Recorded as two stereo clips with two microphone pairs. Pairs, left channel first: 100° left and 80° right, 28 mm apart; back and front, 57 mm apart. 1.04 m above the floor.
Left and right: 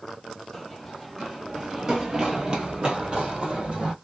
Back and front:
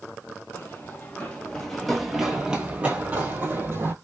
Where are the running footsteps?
170° right, 1.3 m; by 3.9 s 35° right, 1.7 m.